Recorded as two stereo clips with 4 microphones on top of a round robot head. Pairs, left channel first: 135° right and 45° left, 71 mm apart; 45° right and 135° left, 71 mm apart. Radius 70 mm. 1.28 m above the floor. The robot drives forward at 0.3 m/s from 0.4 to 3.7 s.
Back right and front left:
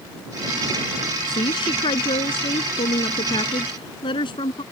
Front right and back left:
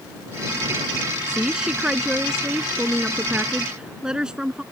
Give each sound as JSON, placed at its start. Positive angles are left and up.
{"t": 1.3, "sound": "a woman speaking", "azimuth_deg": -145}